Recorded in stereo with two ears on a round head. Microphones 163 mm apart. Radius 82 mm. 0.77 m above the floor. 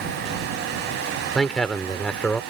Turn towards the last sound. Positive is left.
turn(degrees=5)  # may be behind; listen again after turning